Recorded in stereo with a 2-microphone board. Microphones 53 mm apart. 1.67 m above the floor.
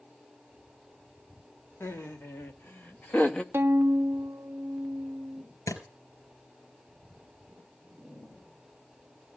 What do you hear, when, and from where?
1.8 s laughter: 50° left (ahead or behind), 2 m; by 3.4 s 20° left (ahead or behind), 1.1 m
3.5 s a violin: 45° right (ahead or behind), 0.6 m
5.7 s a thud: 75° left (ahead or behind), 4 m